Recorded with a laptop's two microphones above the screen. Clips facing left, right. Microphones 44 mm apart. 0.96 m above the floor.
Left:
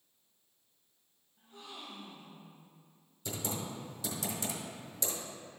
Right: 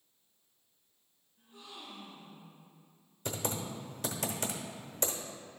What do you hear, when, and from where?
1.4 s a gasp: 55° left (ahead or behind), 1.6 m
3.2 s typing on a keyboard: 60° right (ahead or behind), 1.0 m